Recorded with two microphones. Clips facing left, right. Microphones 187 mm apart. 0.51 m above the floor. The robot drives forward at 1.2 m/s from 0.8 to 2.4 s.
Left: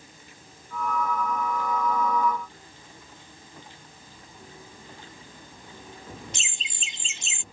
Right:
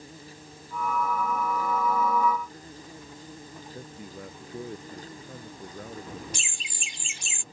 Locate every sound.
0.0 s an insect: 35° right (ahead or behind); by 7.5 s 40° right (ahead or behind)
3.7 s a man speaking: 80° right
6.3 s laughter: 25° left (ahead or behind)